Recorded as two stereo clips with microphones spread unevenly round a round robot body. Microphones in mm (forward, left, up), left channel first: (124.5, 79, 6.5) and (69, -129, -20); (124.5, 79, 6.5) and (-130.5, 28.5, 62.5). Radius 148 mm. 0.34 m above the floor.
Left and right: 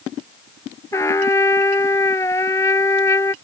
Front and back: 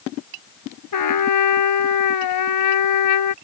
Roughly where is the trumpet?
Ahead.